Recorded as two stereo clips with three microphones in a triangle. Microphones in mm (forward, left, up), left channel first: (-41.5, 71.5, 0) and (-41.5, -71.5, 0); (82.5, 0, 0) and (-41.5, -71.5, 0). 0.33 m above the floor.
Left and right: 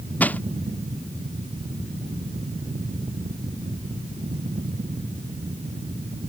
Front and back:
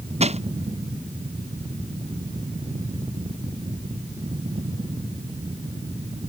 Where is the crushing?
170° left.